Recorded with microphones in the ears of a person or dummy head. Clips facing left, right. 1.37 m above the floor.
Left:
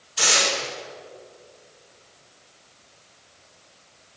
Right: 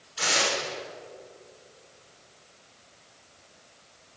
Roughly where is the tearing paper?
Left.